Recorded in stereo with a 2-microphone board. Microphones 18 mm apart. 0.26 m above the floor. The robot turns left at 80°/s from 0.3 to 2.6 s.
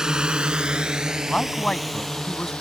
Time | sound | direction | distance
0.0 | a drone | 40° right (ahead or behind) | ?
1.3 | a man speaking | 130° left | ?